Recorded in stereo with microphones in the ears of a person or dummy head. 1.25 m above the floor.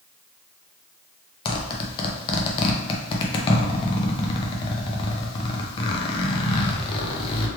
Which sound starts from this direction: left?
A zipper, at 1.4 s.